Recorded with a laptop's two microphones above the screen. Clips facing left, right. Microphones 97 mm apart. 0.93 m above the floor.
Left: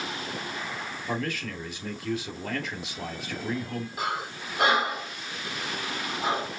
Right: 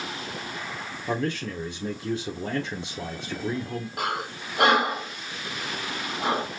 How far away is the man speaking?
About 2.5 m.